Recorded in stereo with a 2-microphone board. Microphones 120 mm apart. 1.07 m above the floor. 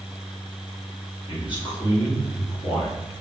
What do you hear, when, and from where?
1.3 s a man speaking: 45° left (ahead or behind), 1.1 m